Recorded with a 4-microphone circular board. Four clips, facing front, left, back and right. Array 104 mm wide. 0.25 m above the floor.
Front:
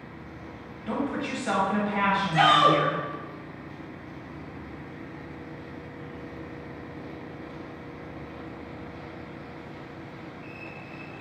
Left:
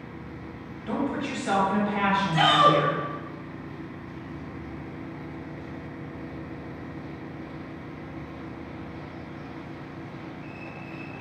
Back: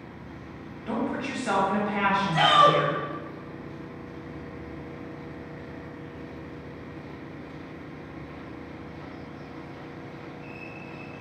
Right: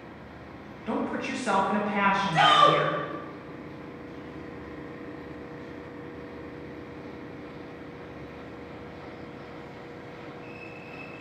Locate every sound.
0.9 s a woman speaking: 105° right, 0.9 m
2.3 s a shout: 80° right, 1.6 m